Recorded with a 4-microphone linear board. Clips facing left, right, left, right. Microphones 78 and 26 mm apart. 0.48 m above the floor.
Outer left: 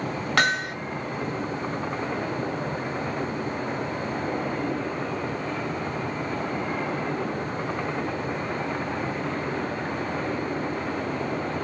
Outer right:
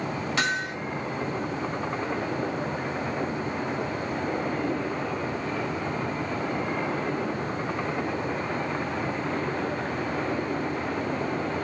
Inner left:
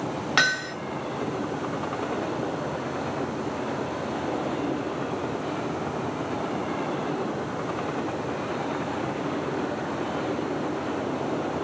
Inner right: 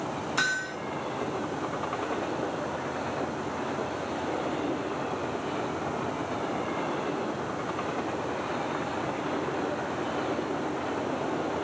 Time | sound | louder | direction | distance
0.4 | hammering | outer left 5 dB, inner left 6 dB | 60° left (ahead or behind) | 2.5 m